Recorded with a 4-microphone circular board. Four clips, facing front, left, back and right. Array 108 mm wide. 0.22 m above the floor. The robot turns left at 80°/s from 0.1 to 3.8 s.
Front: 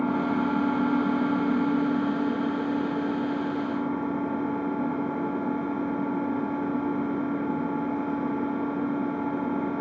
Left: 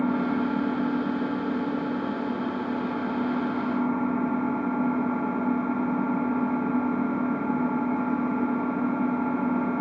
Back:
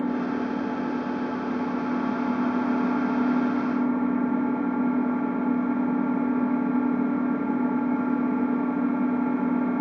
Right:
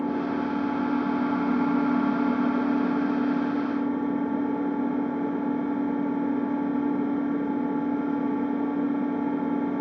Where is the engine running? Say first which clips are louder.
Left 2 dB, front 1 dB; 35° left, 2.0 m; by 9.8 s 100° left, 2.0 m.